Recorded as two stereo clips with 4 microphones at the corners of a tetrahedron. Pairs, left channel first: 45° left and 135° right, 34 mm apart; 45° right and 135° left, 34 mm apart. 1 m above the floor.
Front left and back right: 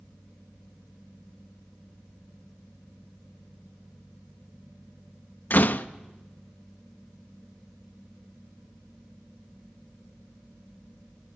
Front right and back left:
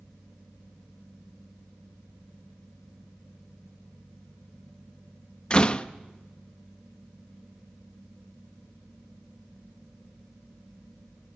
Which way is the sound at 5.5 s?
15° left.